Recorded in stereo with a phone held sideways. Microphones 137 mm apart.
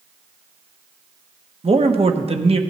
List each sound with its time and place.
1.6 s a man speaking: 50° right (ahead or behind), 1.0 m